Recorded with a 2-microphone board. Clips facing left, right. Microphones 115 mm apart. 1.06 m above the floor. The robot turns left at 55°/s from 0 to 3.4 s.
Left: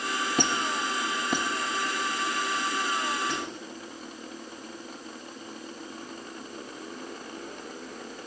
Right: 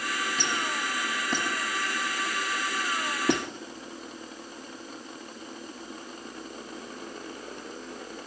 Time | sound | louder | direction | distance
0.4 | a squeak | left 3 dB | 65° left (ahead or behind) | 0.9 m